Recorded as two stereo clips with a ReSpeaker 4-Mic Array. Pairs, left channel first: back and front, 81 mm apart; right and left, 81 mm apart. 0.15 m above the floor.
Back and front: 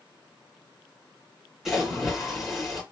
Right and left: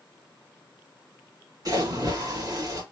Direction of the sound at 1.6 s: 85° left.